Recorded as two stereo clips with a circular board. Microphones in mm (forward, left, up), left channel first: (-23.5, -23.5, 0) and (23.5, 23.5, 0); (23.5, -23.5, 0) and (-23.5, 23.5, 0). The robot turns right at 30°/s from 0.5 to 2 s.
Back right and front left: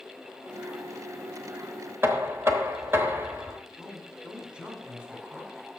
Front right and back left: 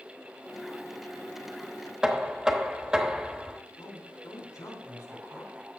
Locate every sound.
2.0 s knocking: 65° left, 0.9 m
3.8 s a man speaking: 25° right, 3 m